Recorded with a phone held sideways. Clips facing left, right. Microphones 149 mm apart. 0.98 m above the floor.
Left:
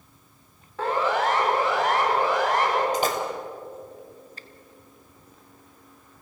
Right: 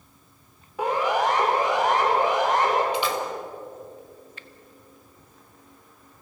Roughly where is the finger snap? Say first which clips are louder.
Even; left.